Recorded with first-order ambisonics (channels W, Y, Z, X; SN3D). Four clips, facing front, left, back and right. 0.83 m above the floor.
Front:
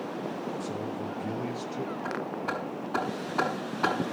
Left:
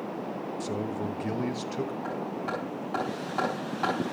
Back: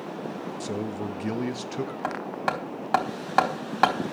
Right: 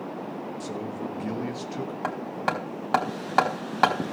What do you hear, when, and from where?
0.6 s a man speaking: 170° left, 1.1 m
2.0 s hammering: 140° right, 4 m